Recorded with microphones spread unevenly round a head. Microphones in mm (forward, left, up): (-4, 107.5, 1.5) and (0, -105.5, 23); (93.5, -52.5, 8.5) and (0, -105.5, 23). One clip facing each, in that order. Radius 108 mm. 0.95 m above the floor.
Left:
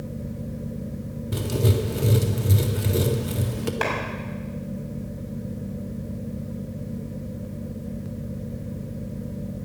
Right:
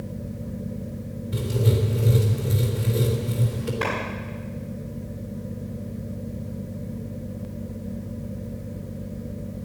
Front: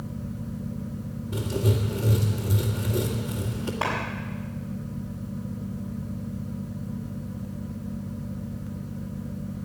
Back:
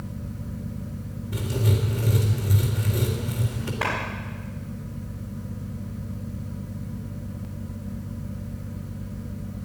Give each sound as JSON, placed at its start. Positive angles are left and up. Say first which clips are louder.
{"t": 1.3, "sound": "writing", "louder": "left 1 dB, even", "azimuth_deg": 105, "distance_m": 1.9}
{"t": 3.8, "sound": "a clap", "louder": "right 1 dB, even", "azimuth_deg": 110, "distance_m": 5.5}